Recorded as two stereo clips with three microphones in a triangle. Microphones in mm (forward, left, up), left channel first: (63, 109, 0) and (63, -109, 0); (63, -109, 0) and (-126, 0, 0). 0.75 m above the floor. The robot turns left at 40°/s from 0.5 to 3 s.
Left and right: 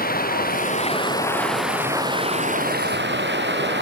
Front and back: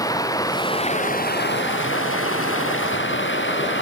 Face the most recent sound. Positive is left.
turn(degrees=-55)